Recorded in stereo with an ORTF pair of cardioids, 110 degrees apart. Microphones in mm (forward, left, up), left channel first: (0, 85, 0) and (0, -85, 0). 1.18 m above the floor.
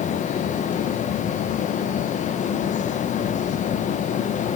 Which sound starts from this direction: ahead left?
A fan, at 0.0 s.